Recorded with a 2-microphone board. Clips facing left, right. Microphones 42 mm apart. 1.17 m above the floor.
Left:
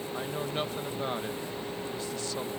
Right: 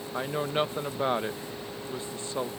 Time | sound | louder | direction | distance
0.1 | a woman speaking | right 6 dB | 30° right (ahead or behind) | ?